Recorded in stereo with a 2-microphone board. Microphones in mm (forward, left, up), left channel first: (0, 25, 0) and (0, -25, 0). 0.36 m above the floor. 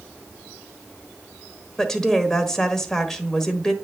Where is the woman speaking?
10° left (ahead or behind), 1.2 m.